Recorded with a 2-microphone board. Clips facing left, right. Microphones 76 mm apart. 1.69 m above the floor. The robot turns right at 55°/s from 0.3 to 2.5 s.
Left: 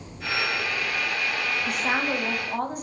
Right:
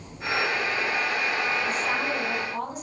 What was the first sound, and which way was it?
A woman speaking, 80° left.